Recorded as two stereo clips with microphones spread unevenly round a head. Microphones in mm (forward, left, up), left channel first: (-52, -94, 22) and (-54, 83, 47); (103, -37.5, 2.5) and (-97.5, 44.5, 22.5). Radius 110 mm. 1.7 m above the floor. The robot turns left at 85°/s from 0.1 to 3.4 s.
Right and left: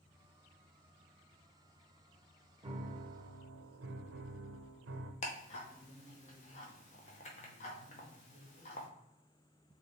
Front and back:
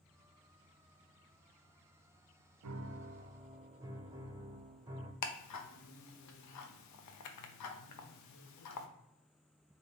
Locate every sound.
2.6 s a piano: 150° left, 0.5 m; by 5.1 s 85° left, 0.5 m
5.2 s ticking: 30° right, 0.6 m